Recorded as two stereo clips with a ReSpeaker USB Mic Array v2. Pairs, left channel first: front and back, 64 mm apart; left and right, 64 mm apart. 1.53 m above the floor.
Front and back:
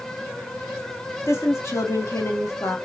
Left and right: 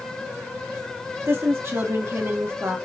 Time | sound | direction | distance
1.3 | a woman speaking | 45° right | 1.4 m